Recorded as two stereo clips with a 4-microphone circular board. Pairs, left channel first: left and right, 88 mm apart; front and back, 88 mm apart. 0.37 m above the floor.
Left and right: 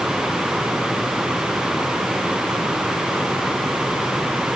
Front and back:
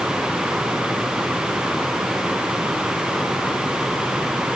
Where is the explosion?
I don't hear an explosion.